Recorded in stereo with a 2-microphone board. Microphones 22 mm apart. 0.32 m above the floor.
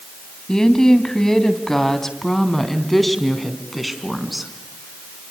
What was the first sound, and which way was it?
A woman speaking, 30° left (ahead or behind).